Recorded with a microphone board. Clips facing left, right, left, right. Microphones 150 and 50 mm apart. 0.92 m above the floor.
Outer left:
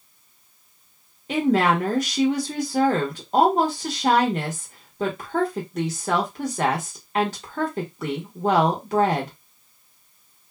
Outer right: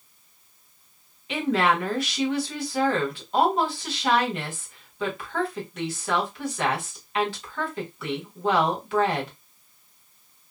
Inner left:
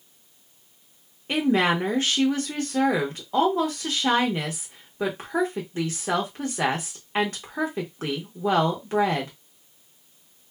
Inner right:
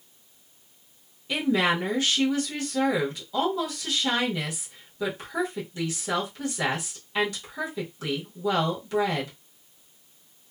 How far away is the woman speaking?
About 0.9 m.